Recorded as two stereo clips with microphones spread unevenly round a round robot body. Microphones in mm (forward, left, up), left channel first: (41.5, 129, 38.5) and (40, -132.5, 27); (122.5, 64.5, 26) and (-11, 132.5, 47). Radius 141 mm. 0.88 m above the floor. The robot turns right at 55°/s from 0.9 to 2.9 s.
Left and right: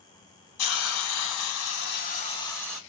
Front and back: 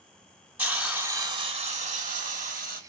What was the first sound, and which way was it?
A hiss, 75° left.